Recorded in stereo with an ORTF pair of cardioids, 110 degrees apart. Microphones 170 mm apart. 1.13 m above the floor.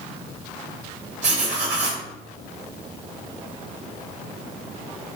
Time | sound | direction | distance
1.2 | writing | 45° right | 1.3 m